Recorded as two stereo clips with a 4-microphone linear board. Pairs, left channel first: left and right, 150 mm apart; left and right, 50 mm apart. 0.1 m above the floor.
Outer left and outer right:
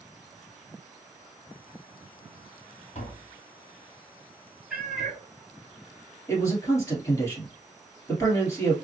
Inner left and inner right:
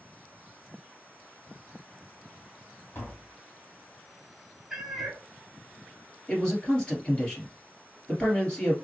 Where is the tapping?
50° left (ahead or behind), 1.4 m.